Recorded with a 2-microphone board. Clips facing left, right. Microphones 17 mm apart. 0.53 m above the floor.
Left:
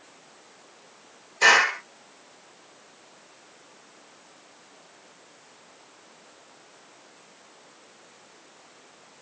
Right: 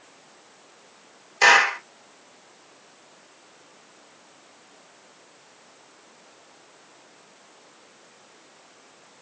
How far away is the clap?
About 1.9 m.